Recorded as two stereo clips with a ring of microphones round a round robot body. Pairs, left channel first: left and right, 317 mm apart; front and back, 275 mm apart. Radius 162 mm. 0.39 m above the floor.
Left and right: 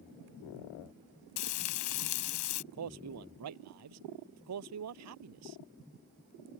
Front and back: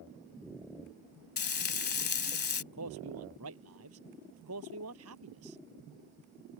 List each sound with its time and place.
1.4 s frying: 55° left
2.7 s a man speaking: 130° right